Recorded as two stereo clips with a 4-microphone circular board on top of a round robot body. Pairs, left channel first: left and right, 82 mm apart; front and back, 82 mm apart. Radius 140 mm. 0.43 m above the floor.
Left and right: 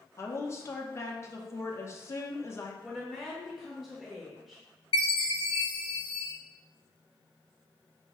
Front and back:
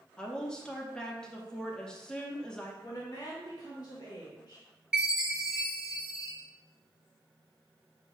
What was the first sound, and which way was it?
A woman speaking, 75° left.